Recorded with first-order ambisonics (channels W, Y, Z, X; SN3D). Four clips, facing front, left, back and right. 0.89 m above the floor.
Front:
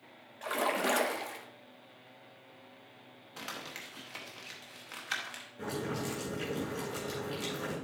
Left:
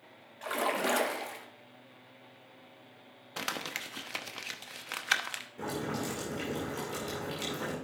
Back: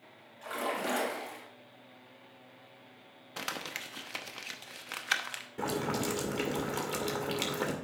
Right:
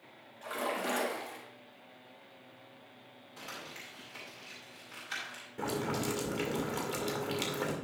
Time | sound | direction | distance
0.4 | a splash | 45° left | 1.0 m
3.4 | crumpling | 120° left | 0.8 m
5.6 | boiling | 160° right | 2 m